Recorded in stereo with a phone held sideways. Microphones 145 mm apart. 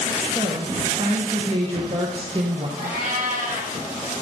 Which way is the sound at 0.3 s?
40° right (ahead or behind).